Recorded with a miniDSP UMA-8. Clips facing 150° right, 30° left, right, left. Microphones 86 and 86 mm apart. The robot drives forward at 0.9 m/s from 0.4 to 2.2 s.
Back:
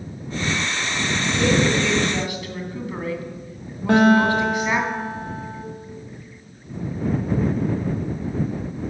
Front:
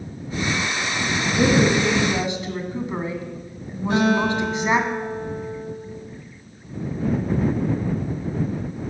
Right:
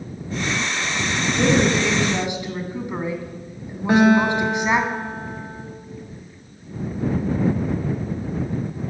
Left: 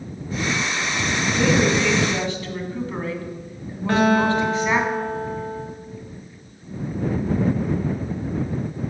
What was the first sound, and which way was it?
A woman speaking, 15° right.